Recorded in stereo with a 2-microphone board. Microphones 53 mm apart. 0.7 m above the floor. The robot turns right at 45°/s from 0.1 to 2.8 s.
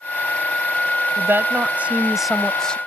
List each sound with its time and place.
1.2 s a woman speaking: 50° right; by 2.8 s 20° left